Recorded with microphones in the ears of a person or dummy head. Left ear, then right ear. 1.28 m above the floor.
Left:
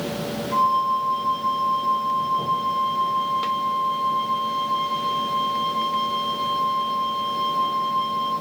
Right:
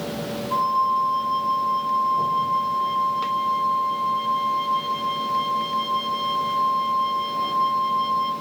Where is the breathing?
I don't hear breathing.